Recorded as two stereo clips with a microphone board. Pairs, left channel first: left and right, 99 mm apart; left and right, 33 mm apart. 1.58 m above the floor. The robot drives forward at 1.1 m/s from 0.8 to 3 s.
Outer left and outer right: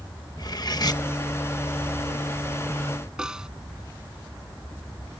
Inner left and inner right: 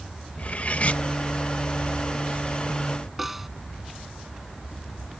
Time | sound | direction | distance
0.4 | cutlery clinking | 45° left (ahead or behind) | ?
3.2 | a snare drum | 5° right (ahead or behind) | ?